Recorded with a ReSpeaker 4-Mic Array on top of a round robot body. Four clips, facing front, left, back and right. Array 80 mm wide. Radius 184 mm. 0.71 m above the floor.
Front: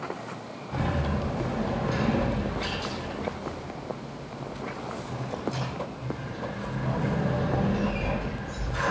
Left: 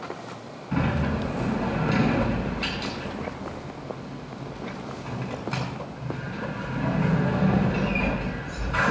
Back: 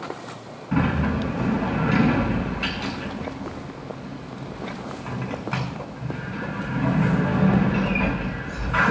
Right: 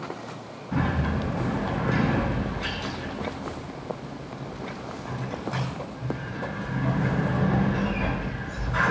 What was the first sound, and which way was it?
A sliding door, 165° left.